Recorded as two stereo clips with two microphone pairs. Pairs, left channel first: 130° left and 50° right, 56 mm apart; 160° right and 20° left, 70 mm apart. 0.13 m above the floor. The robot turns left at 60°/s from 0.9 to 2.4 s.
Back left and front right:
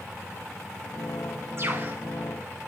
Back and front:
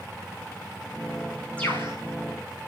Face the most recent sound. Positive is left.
turn(degrees=-140)